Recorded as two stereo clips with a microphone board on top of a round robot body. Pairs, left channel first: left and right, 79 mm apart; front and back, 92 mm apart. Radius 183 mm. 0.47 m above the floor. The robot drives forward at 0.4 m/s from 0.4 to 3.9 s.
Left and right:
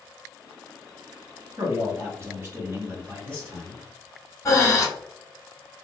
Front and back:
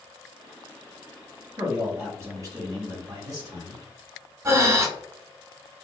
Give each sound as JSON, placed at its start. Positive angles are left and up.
{"t": 1.6, "sound": "a man speaking", "azimuth_deg": -125, "distance_m": 1.5}
{"t": 4.5, "sound": "breathing", "azimuth_deg": 125, "distance_m": 0.8}